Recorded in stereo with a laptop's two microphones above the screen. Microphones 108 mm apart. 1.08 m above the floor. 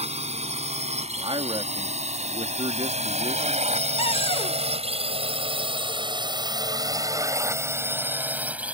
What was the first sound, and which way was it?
A drone, 70° right (ahead or behind).